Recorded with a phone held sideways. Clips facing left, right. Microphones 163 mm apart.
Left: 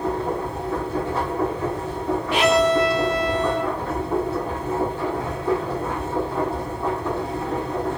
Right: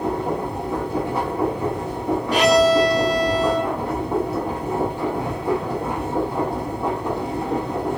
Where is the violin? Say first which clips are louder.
Right 3 dB; 40° right (ahead or behind), 0.9 m.